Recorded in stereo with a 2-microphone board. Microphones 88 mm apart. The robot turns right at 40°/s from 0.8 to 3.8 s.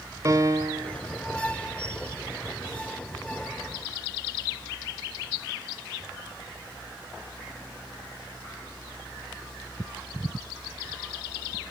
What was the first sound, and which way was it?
A piano, 40° right (ahead or behind).